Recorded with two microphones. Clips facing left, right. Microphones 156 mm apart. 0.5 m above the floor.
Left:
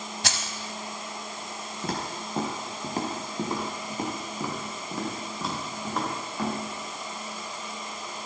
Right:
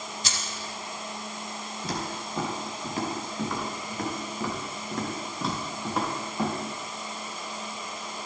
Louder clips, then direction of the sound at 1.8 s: Left 1 dB; 55° left (ahead or behind).